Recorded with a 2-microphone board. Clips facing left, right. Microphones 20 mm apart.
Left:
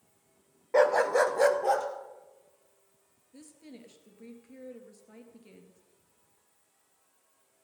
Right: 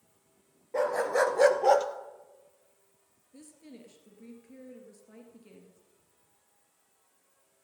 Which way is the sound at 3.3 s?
15° left (ahead or behind).